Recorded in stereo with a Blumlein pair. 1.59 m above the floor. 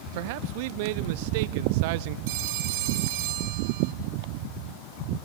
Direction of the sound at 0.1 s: 50° right.